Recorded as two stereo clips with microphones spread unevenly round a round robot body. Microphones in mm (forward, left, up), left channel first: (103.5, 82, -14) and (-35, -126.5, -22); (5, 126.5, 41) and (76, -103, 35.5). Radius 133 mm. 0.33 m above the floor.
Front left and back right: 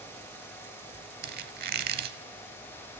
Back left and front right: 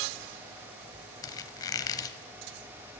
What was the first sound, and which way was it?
A squeak, 175° right.